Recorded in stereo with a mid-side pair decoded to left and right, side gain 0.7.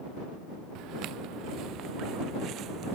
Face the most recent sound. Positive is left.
turn(degrees=-45)